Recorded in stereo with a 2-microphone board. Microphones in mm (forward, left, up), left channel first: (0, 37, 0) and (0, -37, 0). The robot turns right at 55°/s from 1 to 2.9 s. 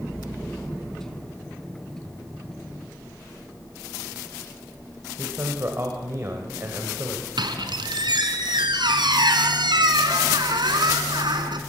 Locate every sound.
5.2 s a man speaking: 35° right (ahead or behind), 2.5 m
7.4 s a squeak: 85° right, 2 m